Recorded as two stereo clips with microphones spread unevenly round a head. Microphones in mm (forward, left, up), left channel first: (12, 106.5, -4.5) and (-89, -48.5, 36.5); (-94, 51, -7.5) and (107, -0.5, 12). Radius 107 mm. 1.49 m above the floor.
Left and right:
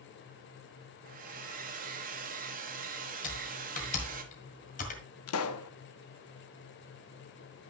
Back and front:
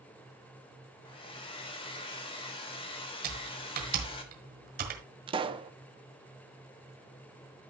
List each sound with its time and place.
1.1 s a hair dryer: 125° right, 1.2 m
3.2 s typing on a keyboard: straight ahead, 1.7 m
5.3 s a pop: 45° left, 0.8 m